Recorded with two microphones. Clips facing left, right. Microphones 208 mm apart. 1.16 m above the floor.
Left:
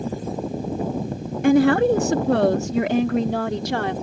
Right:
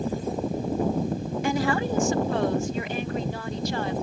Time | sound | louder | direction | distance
1.4 | a woman speaking | left 11 dB | 55° left (ahead or behind) | ?